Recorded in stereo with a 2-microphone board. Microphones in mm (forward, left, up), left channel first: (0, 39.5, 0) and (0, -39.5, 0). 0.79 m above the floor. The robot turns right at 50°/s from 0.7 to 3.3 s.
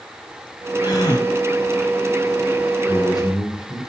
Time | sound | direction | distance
0.8 | a gasp | 80° left | 2.5 m
2.9 | a man speaking | 80° left | 2.5 m